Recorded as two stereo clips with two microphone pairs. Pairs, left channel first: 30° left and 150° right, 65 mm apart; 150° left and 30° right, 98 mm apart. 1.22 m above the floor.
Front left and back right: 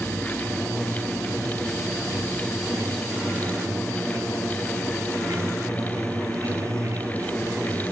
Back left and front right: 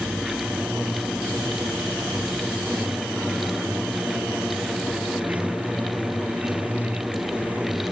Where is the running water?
110° right.